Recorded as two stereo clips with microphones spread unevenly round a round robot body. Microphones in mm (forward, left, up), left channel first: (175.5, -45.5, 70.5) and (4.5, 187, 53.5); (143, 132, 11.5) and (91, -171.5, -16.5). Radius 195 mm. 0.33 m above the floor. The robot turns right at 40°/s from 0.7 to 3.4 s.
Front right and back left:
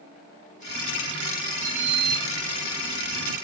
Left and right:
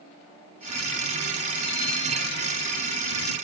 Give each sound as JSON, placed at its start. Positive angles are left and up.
{"t": 1.6, "sound": "a sliding door", "azimuth_deg": 135, "distance_m": 3.0}